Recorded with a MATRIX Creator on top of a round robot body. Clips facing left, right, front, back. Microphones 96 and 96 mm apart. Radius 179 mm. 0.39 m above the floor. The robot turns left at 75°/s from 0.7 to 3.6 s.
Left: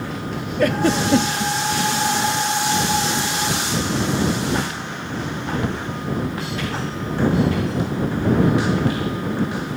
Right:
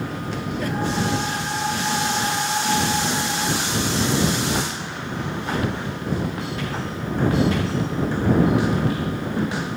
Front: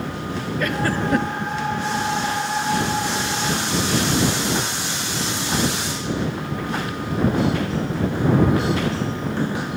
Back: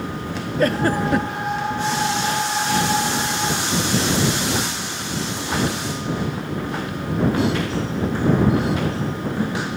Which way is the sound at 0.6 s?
125° left.